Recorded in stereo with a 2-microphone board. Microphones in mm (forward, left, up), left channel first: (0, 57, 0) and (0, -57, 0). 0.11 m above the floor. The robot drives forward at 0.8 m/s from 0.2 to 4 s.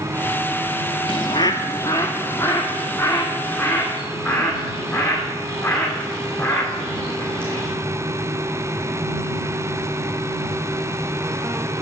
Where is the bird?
50° left (ahead or behind), 0.6 m; by 7.7 s 10° left (ahead or behind), 2.5 m.